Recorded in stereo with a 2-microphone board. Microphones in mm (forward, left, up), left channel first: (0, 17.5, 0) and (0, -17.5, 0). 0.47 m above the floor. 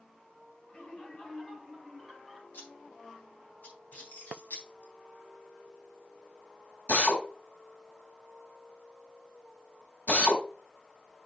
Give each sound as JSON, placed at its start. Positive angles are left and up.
{"t": 0.7, "sound": "laughter", "side_deg": 35, "distance_m": 2.5}
{"t": 2.5, "sound": "scissors", "side_deg": 70, "distance_m": 3.5}
{"t": 3.9, "sound": "keys jangling", "side_deg": 60, "distance_m": 4.0}
{"t": 6.9, "sound": "a drill", "side_deg": 70, "distance_m": 3.0}